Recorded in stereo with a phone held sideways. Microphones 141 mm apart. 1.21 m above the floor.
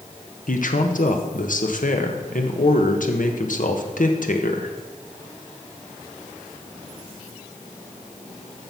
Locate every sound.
0.5 s a man speaking: 70° left (ahead or behind), 1.3 m